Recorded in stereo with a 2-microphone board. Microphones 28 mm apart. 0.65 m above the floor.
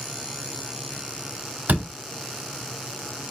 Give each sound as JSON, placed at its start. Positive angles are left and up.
{"t": 1.7, "sound": "a door slam", "side_deg": -80, "distance_m": 1.0}